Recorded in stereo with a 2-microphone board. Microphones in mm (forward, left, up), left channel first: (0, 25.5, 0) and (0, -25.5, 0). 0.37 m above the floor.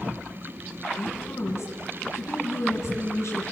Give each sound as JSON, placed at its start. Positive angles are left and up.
{"t": 1.0, "sound": "a woman speaking", "side_deg": 60, "distance_m": 4.0}